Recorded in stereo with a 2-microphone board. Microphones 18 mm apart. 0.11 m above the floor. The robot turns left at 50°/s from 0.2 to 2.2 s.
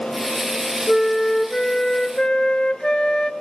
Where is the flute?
170° left, 1.1 m; by 3.3 s 105° left, 1.1 m.